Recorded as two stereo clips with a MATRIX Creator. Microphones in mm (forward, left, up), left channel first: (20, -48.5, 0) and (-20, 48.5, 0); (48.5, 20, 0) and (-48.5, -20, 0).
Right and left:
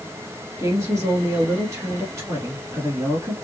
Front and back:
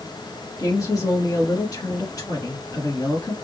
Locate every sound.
0.6 s a woman speaking: 60° left, 1.8 m